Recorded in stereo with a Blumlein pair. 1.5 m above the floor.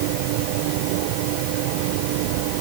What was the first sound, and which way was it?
Only background noise.